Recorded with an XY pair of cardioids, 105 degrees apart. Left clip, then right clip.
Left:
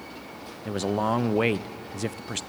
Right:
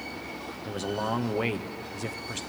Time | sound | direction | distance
0.7 | a man speaking | 35° left | 0.7 m